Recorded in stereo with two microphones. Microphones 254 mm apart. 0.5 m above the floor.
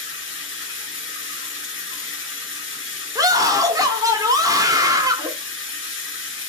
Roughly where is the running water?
Left.